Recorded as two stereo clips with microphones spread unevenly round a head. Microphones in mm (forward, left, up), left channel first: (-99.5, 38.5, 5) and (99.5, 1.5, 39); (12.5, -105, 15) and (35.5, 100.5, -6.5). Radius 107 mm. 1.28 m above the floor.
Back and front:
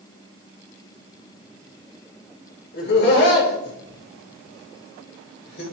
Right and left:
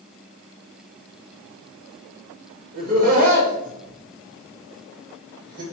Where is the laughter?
135° left, 3 m.